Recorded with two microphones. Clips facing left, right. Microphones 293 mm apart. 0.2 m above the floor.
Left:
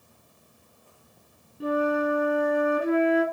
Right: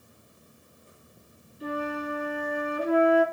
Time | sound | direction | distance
1.6 | a flute | 60° left (ahead or behind) | 3 m